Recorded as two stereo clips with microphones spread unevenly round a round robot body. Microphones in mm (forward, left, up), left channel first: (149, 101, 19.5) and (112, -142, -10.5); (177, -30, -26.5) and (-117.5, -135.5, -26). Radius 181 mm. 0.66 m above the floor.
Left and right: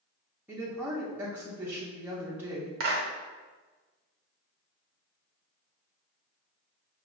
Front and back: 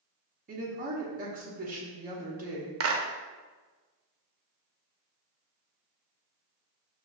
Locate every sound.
0.5 s a woman speaking: 155° right, 0.6 m
2.8 s a clap: 120° right, 0.6 m